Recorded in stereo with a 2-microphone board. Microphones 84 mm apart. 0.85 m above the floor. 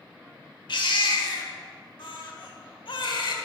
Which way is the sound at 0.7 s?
75° left (ahead or behind).